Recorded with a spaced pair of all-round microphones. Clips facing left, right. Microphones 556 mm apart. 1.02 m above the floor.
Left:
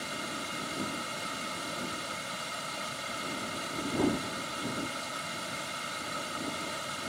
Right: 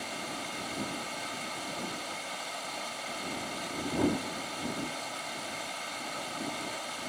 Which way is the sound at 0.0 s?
45° left (ahead or behind).